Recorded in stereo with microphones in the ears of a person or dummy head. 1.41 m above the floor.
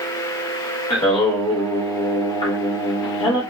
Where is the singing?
30° left (ahead or behind), 1.1 m.